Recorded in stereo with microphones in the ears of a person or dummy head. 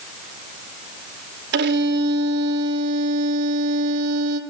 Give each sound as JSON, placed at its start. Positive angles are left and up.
{"t": 1.5, "sound": "a violin", "side_deg": -70, "distance_m": 2.5}